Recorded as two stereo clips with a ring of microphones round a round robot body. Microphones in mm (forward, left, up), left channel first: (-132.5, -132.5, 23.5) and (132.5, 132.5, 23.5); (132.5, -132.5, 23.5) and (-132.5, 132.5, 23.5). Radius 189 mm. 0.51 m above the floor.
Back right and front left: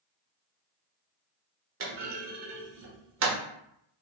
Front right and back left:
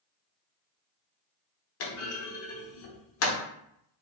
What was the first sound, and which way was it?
A clunk, 5° right.